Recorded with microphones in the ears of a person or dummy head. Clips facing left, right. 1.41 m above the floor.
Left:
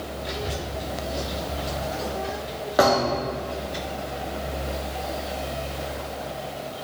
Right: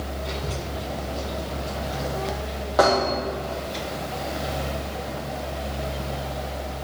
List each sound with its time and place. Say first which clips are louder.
0.2 s a child speaking: left 2 dB; 15° left (ahead or behind), 2.5 m; by 3.8 s 25° left (ahead or behind), 4 m
2.8 s a thud: even; 20° left (ahead or behind), 3 m